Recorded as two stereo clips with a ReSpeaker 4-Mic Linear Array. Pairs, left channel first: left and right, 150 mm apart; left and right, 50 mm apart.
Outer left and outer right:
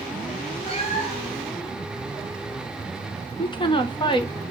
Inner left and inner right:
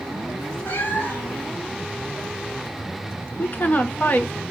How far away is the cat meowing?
About 1.3 m.